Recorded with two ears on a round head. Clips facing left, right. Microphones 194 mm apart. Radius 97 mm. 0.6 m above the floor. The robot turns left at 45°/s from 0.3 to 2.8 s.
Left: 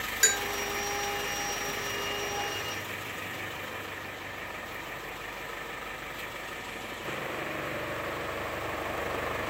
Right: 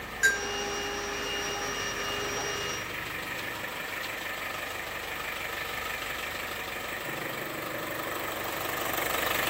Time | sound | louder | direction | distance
0.2 | a bell | even | 55° left (ahead or behind) | 0.8 m